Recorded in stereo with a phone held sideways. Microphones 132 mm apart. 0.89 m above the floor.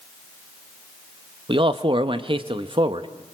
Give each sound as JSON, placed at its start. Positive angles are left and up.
{"t": 1.5, "sound": "a man speaking", "side_deg": -40, "distance_m": 1.0}